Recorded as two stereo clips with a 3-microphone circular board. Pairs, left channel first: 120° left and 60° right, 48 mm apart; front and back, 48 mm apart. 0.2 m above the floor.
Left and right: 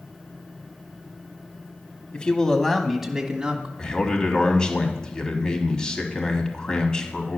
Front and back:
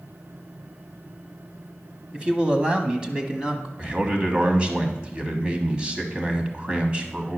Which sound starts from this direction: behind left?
A man speaking, at 2.1 s.